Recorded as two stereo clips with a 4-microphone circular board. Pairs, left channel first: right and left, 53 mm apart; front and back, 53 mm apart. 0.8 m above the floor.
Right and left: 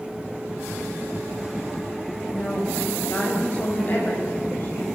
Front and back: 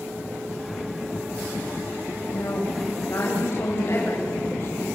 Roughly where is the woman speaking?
Ahead right.